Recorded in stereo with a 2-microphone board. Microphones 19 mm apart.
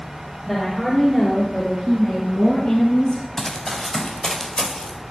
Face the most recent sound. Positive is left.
turn(degrees=35)  # may be behind; listen again after turning